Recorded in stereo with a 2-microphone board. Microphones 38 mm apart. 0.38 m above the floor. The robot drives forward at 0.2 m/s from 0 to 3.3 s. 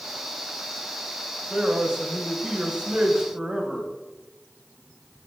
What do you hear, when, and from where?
1.5 s a man speaking: 30° right (ahead or behind), 1.5 m; by 3.9 s 25° right (ahead or behind), 1.7 m